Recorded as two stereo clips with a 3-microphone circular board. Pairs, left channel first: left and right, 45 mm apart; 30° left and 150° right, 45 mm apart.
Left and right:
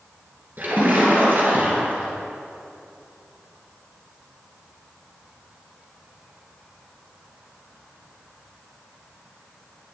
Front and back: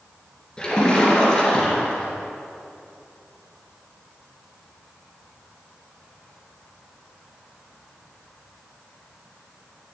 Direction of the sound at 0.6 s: 45° right.